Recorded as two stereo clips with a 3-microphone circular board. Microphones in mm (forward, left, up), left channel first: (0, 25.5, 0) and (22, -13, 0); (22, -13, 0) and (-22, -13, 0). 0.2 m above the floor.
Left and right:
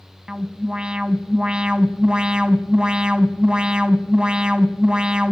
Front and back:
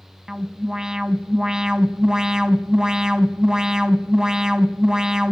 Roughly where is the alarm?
Behind right.